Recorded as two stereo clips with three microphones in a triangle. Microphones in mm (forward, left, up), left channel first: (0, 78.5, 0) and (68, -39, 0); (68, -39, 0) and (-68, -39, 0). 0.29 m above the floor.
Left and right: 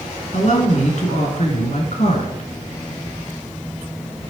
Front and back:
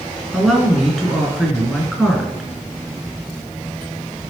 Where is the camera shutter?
I don't hear a camera shutter.